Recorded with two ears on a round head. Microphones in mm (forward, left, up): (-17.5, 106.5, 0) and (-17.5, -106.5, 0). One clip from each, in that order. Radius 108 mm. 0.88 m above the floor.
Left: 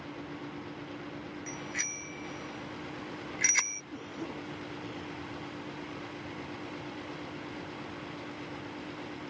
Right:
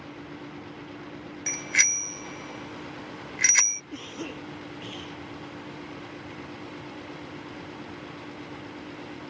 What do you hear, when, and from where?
1.5 s a bicycle bell: 75° right (ahead or behind); by 3.8 s 15° right (ahead or behind)
3.9 s a cough: 65° right (ahead or behind)